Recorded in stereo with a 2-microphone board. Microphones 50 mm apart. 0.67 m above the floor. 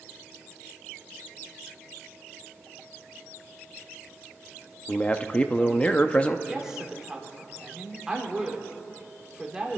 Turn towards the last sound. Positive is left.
turn(degrees=-15)  # may be behind; listen again after turning